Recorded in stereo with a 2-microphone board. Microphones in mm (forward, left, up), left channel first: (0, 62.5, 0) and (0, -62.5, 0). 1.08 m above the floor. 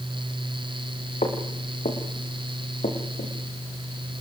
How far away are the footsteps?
About 4.5 m.